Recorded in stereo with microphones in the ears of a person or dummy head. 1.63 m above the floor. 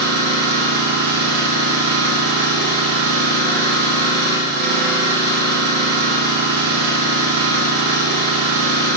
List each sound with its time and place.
0.0 s an engine running: 45° right (ahead or behind), 1.0 m